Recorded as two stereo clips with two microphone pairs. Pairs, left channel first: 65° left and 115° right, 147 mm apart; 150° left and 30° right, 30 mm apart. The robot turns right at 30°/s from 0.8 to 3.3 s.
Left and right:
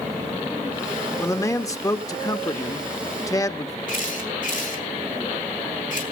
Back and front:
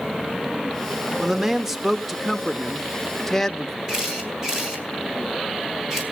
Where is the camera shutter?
45° left, 4 m.